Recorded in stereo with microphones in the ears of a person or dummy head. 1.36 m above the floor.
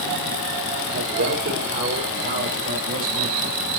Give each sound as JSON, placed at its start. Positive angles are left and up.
{"t": 0.9, "sound": "a man speaking", "side_deg": -60, "distance_m": 6.0}